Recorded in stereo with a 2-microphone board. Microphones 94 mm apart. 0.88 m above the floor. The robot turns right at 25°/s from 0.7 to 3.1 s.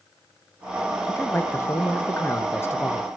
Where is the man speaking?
25° left (ahead or behind), 1.0 m.